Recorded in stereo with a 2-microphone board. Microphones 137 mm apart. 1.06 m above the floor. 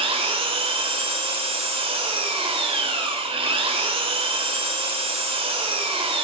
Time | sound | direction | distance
0.0 | an engine running | 45° right (ahead or behind) | 3 m